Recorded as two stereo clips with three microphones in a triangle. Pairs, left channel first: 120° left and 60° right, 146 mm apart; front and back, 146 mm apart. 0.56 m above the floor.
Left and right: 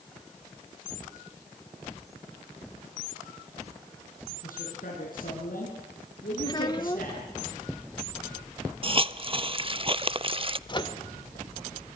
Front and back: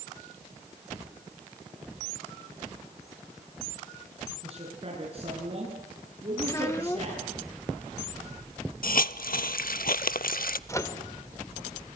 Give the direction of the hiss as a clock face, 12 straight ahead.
12 o'clock.